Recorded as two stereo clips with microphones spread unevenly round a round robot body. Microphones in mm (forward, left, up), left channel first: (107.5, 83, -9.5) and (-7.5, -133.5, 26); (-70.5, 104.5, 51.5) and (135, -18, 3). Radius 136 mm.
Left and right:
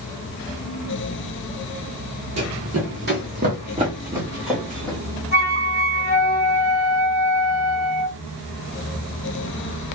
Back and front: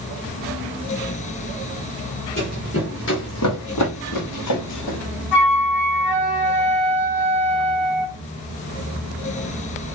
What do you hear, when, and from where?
2.4 s running footsteps: 150° right, 1.4 m; by 5.0 s 145° left, 1.6 m
5.3 s a flute: 155° left, 1.4 m